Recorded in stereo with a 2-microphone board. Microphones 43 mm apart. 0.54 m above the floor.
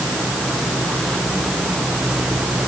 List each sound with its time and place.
Only background noise.